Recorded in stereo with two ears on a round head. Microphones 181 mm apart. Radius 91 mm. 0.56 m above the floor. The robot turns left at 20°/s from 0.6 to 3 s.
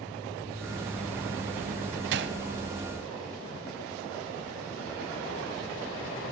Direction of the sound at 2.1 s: 60° right (ahead or behind).